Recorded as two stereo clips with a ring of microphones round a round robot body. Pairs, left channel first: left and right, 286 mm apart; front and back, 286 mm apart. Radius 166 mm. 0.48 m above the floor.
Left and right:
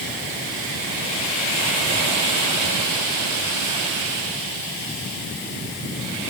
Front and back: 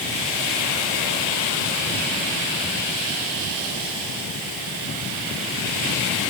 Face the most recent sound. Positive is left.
No sound to turn to.